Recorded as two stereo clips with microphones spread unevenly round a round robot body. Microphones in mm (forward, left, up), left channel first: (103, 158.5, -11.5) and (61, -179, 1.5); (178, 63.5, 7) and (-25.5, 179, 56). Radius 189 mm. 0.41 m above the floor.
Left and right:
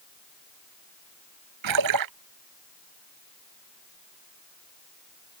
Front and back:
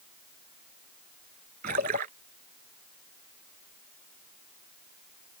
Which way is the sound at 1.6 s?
140° right.